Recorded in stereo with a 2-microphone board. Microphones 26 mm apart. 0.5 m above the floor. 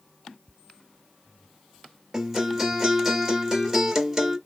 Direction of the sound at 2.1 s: 10° right (ahead or behind).